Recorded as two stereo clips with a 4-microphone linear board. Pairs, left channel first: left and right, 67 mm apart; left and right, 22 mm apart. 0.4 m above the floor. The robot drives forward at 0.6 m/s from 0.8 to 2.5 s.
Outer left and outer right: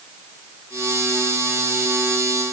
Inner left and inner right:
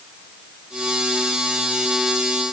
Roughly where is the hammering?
No hammering in this recording.